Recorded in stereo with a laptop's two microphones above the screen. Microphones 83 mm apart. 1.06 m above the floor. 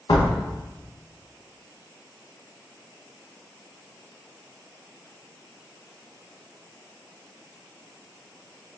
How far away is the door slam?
About 0.5 m.